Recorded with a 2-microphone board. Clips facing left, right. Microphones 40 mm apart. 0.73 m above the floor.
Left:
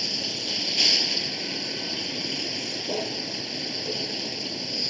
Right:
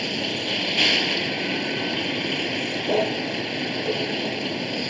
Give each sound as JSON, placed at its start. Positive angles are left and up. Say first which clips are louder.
{"t": 0.0, "sound": "a vehicle", "louder": "right 6 dB", "side_deg": -40}